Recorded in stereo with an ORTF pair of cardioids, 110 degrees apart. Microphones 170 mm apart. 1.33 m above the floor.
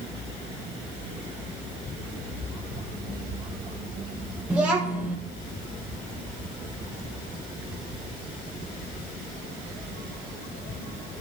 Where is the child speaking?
5° right, 1.2 m.